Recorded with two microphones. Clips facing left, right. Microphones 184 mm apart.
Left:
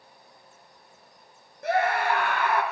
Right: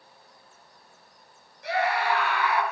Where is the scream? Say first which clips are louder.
Left 2 dB; 50° left (ahead or behind), 3 m.